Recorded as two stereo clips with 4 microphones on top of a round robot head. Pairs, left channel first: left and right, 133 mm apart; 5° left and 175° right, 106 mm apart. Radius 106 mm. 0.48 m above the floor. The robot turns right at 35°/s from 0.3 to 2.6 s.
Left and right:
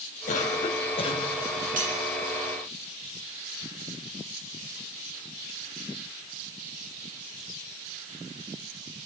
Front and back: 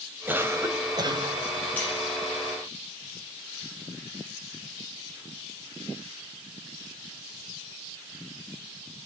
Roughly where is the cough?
Behind left.